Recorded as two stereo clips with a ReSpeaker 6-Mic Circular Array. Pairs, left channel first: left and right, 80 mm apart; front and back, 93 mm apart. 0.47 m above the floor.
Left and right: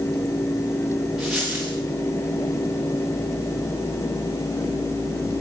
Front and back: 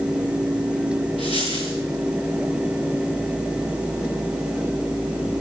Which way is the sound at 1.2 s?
5° right.